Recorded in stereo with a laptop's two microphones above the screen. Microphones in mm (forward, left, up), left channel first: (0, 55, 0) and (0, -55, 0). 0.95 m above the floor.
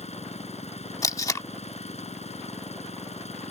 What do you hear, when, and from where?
0.0 s an engine running: 80° left
1.0 s tape being pulled: 30° left (ahead or behind)